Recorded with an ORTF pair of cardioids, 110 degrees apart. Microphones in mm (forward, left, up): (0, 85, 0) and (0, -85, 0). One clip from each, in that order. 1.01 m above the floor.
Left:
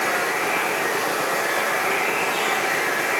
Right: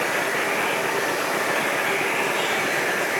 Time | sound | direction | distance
0.0 | running water | 70° left | 3 m